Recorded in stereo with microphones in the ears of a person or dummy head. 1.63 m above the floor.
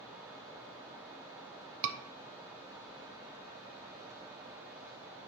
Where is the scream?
70° right (ahead or behind), 0.8 m.